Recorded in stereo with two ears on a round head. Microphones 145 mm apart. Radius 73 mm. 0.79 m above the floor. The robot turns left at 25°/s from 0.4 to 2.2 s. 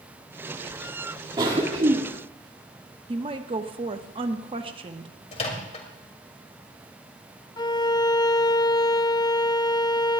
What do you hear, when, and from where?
1.4 s a cough: 30° right (ahead or behind), 1.9 m; by 2.0 s 45° right (ahead or behind), 1.9 m
3.1 s a woman speaking: 35° right (ahead or behind), 1.1 m
5.3 s a microwave: 40° left (ahead or behind), 2.5 m
7.6 s a violin: 25° left (ahead or behind), 0.6 m